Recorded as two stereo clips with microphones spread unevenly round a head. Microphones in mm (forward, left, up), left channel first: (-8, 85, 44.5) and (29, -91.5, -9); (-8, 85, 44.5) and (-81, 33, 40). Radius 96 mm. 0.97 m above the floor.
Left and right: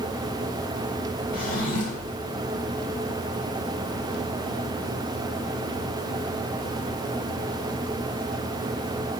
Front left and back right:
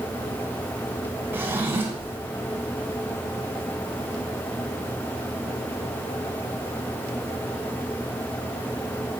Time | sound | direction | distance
1.3 | a drawer | 150° left | 2.5 m